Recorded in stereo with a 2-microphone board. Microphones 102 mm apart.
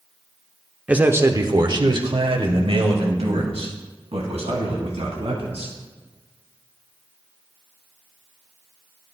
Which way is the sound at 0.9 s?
10° right (ahead or behind).